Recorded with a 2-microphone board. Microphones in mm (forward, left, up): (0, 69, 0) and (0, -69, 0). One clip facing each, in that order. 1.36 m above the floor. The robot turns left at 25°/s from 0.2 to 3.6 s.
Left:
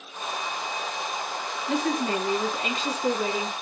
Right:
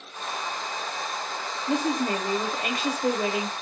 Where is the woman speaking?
30° right, 0.8 m; by 3.5 s 75° right, 0.8 m.